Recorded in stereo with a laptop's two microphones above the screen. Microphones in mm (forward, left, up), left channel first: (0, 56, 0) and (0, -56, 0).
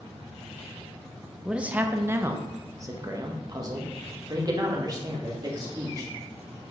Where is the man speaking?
5° right (ahead or behind), 0.6 m; by 6.1 s 35° right (ahead or behind), 2.5 m.